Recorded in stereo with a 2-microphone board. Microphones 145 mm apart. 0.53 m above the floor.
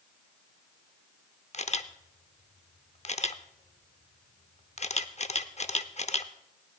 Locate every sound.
1.5 s a camera shutter: 50° left (ahead or behind), 0.7 m